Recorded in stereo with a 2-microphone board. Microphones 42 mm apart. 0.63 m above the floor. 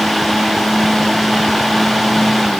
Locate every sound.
Only background noise.